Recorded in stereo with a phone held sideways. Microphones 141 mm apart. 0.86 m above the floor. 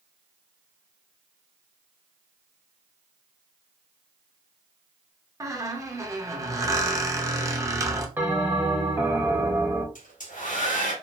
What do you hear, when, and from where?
5.4 s a squeak: 25° right (ahead or behind), 0.5 m
8.2 s a bell: 15° right (ahead or behind), 0.7 m
9.9 s a hair dryer: 75° left (ahead or behind), 0.9 m